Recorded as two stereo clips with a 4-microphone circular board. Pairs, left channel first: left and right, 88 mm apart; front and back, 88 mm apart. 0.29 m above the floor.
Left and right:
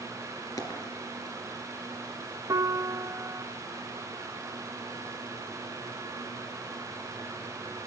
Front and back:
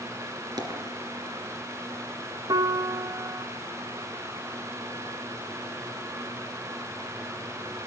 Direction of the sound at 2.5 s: 140° right.